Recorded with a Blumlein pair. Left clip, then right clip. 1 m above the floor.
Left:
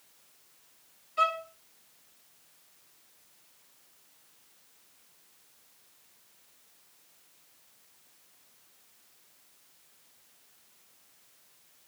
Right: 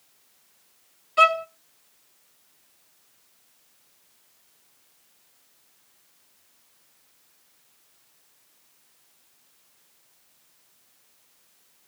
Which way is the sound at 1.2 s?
30° right.